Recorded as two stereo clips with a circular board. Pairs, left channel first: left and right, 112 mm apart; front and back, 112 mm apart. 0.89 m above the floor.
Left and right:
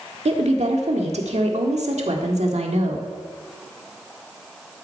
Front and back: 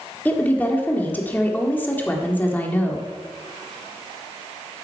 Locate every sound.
0.2 s a woman speaking: 75° right, 1.7 m